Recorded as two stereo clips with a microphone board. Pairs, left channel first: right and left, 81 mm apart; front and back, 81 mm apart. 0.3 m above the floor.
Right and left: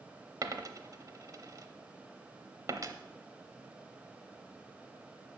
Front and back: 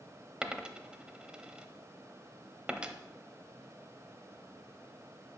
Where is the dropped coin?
105° left, 0.7 m.